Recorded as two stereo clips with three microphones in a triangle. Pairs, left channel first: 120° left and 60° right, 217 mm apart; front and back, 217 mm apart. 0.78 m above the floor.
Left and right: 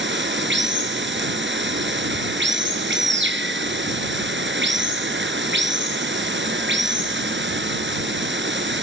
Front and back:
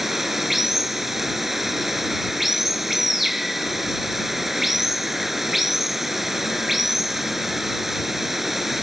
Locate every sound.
0.0 s running water: 90° right